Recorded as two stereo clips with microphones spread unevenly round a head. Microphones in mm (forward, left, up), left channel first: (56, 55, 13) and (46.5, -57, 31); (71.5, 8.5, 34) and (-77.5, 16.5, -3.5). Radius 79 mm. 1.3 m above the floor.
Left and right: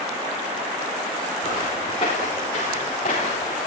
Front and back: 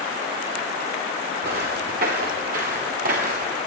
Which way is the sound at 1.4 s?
150° left.